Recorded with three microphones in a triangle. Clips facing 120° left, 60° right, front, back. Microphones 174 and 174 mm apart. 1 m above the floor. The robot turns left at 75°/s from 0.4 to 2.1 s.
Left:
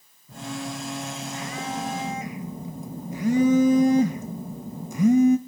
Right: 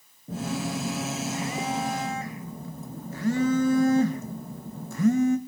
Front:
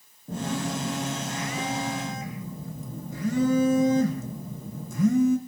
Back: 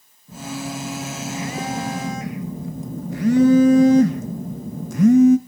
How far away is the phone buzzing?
About 0.8 m.